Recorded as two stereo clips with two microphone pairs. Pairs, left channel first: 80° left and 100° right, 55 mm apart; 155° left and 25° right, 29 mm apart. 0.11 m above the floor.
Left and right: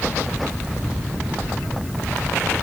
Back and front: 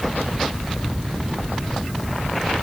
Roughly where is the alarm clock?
No alarm clock in this recording.